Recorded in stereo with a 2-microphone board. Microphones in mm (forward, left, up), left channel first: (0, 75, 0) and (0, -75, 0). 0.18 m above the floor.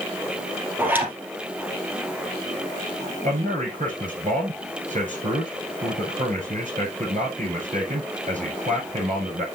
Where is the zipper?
10° right (ahead or behind), 3 m.